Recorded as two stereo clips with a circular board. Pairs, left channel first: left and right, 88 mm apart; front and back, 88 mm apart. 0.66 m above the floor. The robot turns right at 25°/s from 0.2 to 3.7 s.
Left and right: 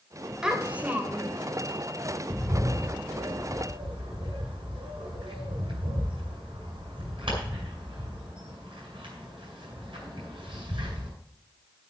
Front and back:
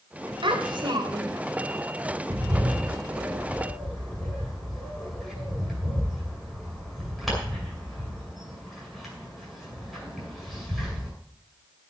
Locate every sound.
0.4 s a child speaking: 170° right, 2.0 m; by 1.4 s 145° right, 2.0 m
2.3 s a bird: 125° right, 6.5 m; by 11.1 s 90° right, 6.5 m